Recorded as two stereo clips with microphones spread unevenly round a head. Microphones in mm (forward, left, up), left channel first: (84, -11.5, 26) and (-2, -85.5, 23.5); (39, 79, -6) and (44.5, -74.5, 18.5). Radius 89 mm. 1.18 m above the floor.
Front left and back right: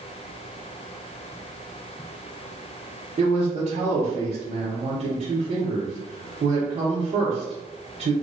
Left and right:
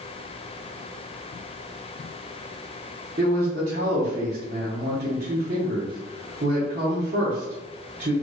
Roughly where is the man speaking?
Behind right.